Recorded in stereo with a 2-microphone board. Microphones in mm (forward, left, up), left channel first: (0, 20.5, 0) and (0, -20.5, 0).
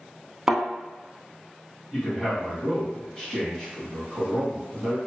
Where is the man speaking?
20° left (ahead or behind), 1.5 m.